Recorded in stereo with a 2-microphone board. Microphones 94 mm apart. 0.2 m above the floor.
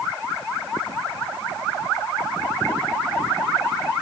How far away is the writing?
I don't hear writing.